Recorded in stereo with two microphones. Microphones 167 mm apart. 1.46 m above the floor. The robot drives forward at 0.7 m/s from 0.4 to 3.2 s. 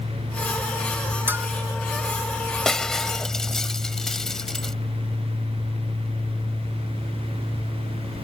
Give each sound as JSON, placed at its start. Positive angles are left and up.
{"t": 1.3, "sound": "a bell", "side_deg": -10}
{"t": 2.6, "sound": "breaking glass", "side_deg": 5}